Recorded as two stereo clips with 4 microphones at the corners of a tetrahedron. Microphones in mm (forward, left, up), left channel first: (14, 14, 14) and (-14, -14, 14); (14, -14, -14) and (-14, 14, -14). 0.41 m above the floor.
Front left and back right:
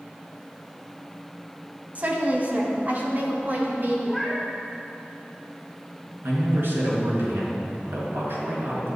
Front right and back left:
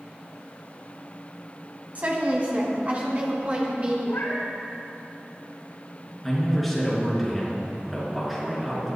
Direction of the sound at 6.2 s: 140° right.